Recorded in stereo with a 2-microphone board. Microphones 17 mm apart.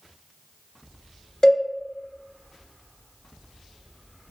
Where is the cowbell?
35° left (ahead or behind), 1.0 m.